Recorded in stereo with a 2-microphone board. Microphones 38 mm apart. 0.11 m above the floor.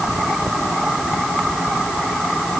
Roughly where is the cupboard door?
No cupboard door in this recording.